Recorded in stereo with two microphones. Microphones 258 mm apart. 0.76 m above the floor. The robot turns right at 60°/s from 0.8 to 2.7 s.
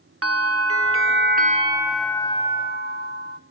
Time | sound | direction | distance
0.2 | a bell | 70° right | 0.7 m